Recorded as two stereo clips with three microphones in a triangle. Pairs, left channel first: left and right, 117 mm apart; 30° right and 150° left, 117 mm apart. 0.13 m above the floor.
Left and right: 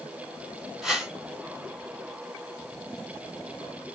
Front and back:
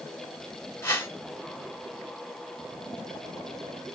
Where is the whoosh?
5° right, 1.3 m.